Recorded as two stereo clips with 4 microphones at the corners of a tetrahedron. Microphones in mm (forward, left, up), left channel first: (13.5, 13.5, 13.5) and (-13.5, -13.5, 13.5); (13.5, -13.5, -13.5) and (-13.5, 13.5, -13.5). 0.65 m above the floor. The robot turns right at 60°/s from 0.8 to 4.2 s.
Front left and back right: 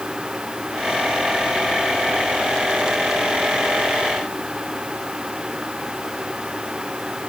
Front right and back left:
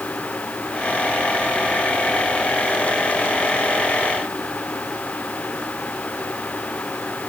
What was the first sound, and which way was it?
Only background noise.